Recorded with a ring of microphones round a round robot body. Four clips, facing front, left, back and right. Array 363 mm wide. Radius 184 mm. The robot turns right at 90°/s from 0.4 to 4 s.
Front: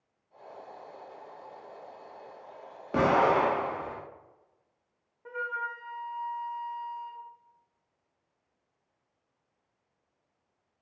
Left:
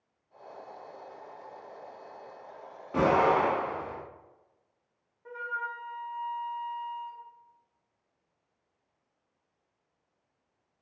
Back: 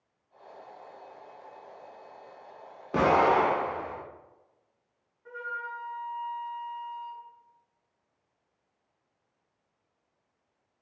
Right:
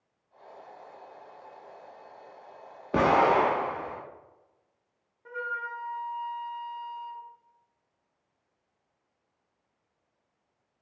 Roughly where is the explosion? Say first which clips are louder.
Right 2 dB, back 1 dB; right.